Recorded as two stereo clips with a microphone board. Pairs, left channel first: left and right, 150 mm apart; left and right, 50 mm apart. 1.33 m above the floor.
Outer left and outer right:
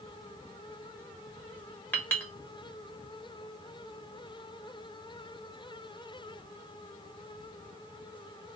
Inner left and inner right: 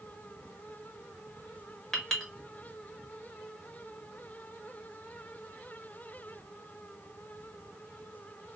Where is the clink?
10° left (ahead or behind), 1.1 m.